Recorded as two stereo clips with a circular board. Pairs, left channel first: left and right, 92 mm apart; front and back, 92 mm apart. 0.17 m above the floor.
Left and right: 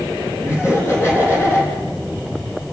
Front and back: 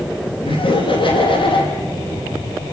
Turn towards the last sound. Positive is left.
turn(degrees=25)